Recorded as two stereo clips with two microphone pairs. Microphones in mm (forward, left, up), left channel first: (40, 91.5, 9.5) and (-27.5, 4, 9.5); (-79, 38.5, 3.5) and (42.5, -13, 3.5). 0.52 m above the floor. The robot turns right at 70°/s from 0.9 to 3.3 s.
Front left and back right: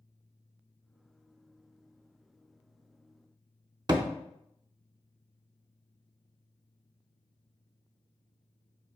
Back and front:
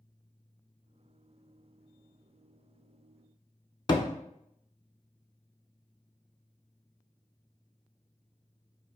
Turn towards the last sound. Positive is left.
turn(degrees=-160)